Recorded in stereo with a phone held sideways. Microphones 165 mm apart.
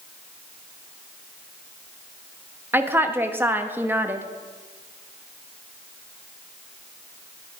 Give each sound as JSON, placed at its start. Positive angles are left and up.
{"t": 2.7, "sound": "a woman speaking", "side_deg": -15, "distance_m": 1.2}